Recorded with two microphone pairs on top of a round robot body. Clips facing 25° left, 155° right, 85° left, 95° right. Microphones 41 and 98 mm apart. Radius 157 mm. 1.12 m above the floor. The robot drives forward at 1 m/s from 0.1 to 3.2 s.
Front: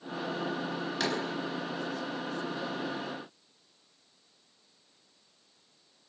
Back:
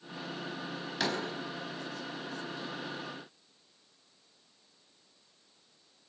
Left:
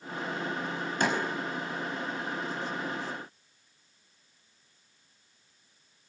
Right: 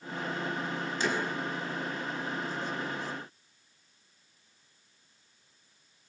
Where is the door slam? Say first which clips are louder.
Even, left 3 dB; 115° left, 5.5 m; by 1.2 s 120° left, 5.5 m.